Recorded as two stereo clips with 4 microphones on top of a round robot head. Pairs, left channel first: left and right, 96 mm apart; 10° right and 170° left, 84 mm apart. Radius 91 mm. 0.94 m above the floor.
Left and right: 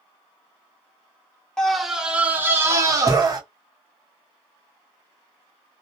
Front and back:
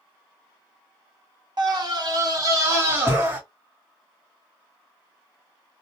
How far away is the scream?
About 1.0 m.